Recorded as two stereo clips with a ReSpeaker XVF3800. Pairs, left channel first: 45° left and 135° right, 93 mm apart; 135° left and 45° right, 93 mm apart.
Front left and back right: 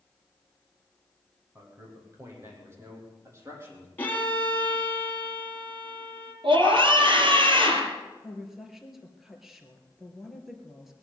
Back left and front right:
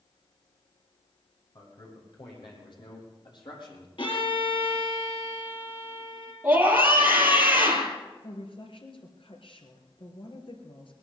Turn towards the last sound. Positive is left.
turn(degrees=140)